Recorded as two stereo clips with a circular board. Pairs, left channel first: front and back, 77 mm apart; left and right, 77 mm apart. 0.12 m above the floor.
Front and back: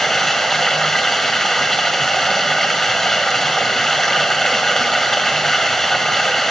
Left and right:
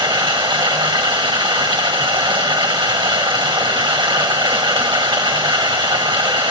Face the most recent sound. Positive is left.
turn(degrees=-85)